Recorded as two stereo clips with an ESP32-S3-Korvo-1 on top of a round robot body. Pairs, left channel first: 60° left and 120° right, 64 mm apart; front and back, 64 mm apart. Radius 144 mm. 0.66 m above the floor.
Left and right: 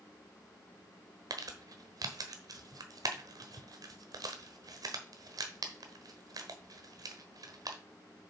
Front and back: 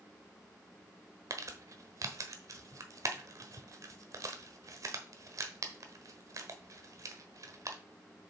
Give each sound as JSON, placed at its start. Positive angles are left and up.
{"t": 1.3, "sound": "crumpling", "azimuth_deg": -145, "distance_m": 1.1}